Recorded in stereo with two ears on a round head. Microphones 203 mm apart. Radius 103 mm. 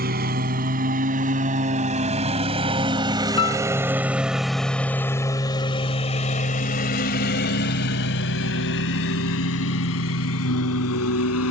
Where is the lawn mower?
45° right (ahead or behind); by 11.5 s 75° left (ahead or behind).